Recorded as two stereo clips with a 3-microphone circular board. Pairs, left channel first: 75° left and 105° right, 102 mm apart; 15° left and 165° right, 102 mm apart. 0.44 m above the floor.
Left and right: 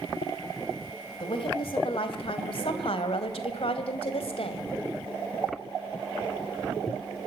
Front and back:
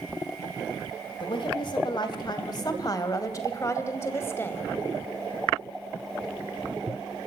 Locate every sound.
1.2 s a woman speaking: 45° left, 3.5 m; by 4.7 s 85° left, 3 m